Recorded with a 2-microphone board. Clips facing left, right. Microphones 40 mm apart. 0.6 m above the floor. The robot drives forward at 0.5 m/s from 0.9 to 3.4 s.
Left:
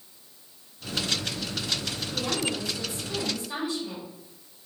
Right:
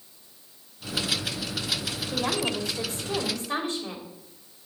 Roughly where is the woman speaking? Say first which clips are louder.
Right 2 dB; right.